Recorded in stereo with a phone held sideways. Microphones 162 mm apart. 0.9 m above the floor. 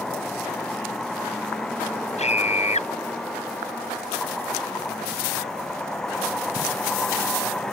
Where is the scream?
40° left (ahead or behind).